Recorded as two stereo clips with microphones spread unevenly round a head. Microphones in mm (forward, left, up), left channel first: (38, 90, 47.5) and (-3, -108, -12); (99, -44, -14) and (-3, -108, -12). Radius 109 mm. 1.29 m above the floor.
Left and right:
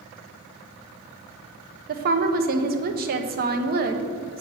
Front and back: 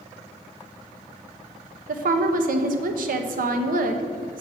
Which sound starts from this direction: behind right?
A woman speaking, at 1.9 s.